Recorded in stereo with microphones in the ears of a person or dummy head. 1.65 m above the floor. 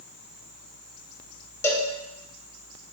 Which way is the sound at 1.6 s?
15° left (ahead or behind).